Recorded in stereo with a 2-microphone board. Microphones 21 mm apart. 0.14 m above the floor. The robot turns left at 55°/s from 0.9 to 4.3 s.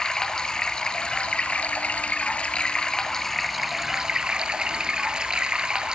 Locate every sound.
0.0 s running water: 145° left, 1.4 m; by 6.0 s 40° right, 1.4 m